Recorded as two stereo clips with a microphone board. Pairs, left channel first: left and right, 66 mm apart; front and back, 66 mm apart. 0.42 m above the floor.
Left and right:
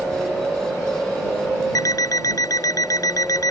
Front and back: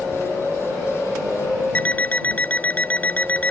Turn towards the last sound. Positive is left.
turn(degrees=65)